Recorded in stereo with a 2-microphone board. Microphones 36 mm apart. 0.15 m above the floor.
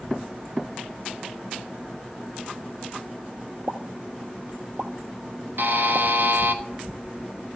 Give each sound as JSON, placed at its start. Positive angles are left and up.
{"t": 3.7, "sound": "a pop", "side_deg": -70, "distance_m": 0.7}
{"t": 5.6, "sound": "a buzzer", "side_deg": -60, "distance_m": 0.8}